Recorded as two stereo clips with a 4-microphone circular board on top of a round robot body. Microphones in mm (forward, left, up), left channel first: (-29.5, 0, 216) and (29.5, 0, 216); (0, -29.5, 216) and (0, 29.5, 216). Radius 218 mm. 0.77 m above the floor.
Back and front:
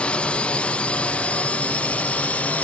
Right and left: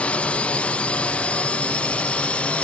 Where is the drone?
130° right; by 2.6 s 140° right.